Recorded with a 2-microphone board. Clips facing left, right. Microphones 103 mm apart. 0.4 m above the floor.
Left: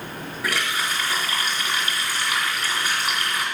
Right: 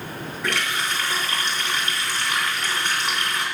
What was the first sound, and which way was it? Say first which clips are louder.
A running tap: even; 10° left (ahead or behind).